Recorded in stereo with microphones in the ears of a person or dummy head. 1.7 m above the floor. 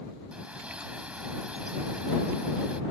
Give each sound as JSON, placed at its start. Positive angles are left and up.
{"t": 0.3, "sound": "a bird", "side_deg": -5}